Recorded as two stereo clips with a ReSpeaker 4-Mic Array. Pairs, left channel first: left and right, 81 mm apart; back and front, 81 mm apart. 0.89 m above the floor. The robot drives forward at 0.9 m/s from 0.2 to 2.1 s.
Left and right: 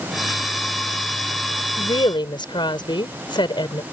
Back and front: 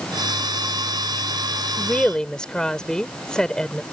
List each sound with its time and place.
1.8 s a woman speaking: 95° left; by 3.8 s 100° left